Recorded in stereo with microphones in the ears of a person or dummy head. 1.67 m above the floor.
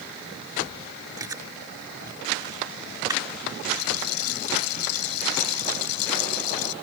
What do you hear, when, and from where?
1.2 s chewing: 15° right (ahead or behind)
3.6 s a rattle: 90° left